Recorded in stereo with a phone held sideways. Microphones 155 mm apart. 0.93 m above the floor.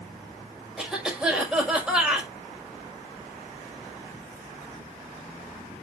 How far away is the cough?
About 5 m.